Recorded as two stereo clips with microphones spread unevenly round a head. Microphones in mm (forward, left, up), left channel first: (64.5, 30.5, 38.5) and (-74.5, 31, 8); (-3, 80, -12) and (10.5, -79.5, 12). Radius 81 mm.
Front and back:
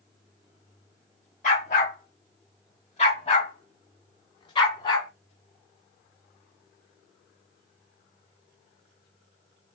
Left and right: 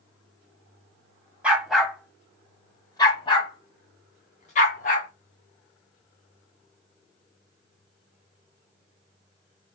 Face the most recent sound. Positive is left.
turn(degrees=50)